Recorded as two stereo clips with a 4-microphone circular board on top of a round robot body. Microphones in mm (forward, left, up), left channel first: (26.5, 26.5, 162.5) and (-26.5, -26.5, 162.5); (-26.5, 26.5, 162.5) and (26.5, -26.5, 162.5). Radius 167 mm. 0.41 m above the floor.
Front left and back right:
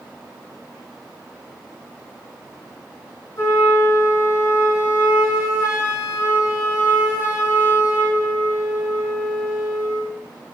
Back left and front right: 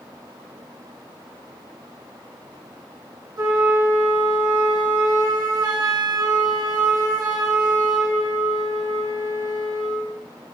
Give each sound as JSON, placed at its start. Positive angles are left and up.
{"t": 3.4, "sound": "a flute", "azimuth_deg": -10, "distance_m": 9.5}